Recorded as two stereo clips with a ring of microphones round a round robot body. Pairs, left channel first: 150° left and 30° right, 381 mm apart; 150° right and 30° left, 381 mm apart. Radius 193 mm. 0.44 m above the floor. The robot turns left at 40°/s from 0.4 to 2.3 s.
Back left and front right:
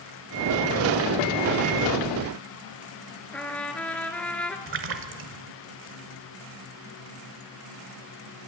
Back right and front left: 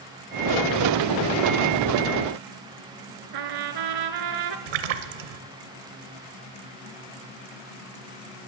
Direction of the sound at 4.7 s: 30° left.